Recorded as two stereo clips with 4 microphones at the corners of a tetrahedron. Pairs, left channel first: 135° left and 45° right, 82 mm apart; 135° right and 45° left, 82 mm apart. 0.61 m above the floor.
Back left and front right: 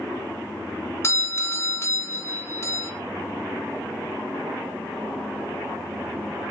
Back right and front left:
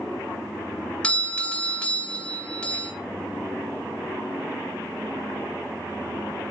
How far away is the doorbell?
About 1.2 m.